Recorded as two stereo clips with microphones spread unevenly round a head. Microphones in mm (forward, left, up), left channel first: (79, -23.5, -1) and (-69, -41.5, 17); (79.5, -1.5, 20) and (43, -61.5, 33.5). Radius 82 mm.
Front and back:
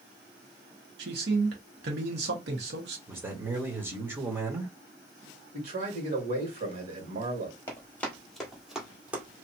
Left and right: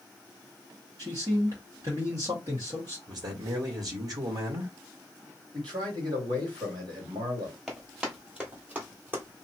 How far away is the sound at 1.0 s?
About 1.5 m.